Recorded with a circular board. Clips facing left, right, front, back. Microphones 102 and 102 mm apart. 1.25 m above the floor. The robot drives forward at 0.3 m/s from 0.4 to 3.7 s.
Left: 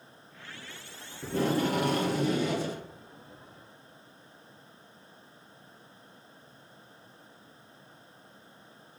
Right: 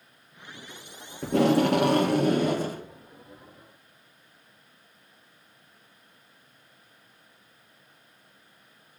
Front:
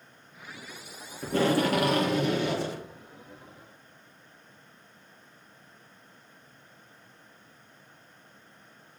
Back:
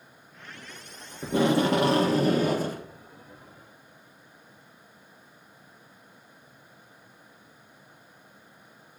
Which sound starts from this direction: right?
Tape being pulled, at 1.2 s.